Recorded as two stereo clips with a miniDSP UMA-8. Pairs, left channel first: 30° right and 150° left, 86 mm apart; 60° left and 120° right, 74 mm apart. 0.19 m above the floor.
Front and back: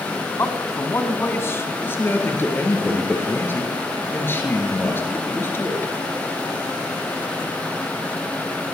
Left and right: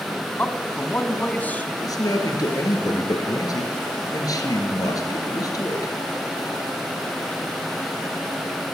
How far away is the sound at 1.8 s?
About 3 m.